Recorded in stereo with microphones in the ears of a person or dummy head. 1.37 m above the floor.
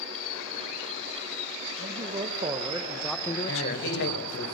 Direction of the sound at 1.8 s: 35° right (ahead or behind).